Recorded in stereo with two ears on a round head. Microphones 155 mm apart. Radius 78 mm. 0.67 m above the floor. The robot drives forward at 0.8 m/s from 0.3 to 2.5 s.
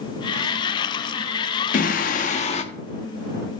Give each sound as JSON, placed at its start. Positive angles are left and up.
{"t": 1.7, "sound": "singing", "side_deg": 45, "distance_m": 0.6}